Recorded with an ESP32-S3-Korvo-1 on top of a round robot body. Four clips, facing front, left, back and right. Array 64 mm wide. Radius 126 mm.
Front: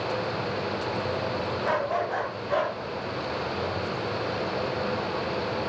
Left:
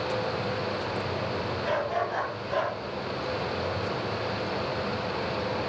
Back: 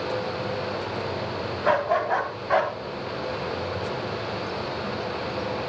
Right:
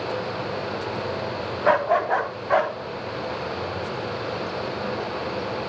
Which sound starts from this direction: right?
A dog barking, at 1.6 s.